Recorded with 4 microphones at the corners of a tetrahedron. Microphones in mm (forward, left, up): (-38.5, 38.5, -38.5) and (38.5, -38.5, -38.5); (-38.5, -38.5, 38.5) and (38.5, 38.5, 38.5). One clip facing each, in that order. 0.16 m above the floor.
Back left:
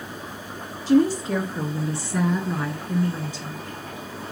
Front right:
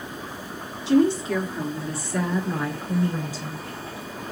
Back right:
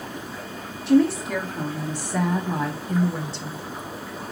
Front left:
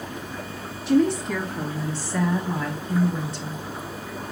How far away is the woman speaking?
About 1.7 m.